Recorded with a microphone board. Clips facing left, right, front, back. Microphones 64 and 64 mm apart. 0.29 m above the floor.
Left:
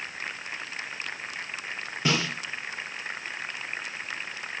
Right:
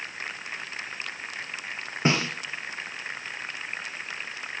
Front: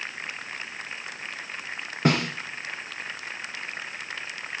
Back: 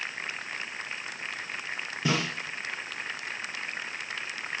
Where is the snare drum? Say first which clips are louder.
Right 2 dB, front 5 dB; 35° right, 3 m.